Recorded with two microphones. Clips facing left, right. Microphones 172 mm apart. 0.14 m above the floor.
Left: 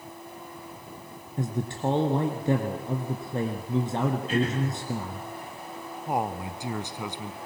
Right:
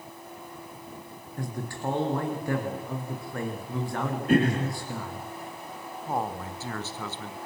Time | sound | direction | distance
1.4 | a man speaking | 20° left (ahead or behind) | 1.7 m
4.3 | throat clearing | 55° right (ahead or behind) | 4 m
6.1 | a man speaking | 15° left (ahead or behind) | 1.1 m